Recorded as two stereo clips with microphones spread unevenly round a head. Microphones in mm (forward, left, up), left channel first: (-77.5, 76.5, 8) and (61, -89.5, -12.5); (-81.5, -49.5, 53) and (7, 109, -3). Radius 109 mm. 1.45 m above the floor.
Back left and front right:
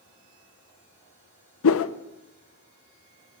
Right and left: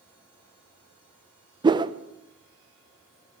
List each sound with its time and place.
1.6 s a whoosh: 135° left, 0.7 m